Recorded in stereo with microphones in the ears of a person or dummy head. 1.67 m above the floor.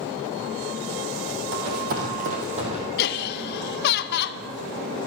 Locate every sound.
1.5 s running footsteps: 45° right (ahead or behind), 2.5 m; by 2.8 s 25° right (ahead or behind), 2.5 m
3.0 s laughter: 55° left (ahead or behind), 0.8 m